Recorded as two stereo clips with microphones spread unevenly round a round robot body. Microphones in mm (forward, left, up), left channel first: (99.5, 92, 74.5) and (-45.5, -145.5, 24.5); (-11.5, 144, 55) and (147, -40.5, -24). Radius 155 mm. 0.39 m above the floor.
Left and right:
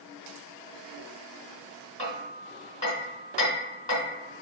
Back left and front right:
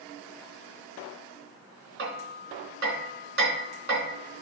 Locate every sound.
2.0 s hammering: 10° right, 3 m